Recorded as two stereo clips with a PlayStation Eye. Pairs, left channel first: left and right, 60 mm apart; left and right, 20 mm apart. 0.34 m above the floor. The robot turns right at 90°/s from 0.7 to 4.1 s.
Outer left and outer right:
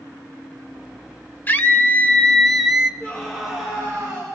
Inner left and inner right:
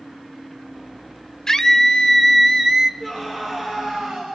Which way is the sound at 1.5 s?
80° left.